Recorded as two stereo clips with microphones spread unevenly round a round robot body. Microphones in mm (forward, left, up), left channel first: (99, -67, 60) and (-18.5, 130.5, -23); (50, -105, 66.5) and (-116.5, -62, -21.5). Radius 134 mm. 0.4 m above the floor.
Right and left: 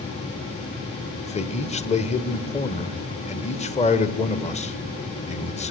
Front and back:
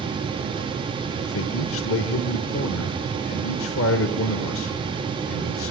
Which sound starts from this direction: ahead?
A man speaking, at 1.2 s.